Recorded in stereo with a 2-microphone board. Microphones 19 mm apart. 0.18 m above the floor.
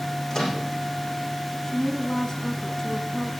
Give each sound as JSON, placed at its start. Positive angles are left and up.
{"t": 0.3, "sound": "a microwave", "side_deg": 40, "distance_m": 9.0}
{"t": 1.6, "sound": "a woman speaking", "side_deg": 25, "distance_m": 1.3}